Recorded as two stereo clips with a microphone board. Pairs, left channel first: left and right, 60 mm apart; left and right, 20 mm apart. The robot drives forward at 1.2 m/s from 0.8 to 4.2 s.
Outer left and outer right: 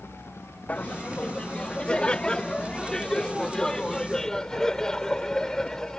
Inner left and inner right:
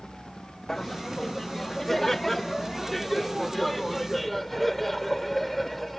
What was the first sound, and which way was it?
Laughter, 25° left (ahead or behind).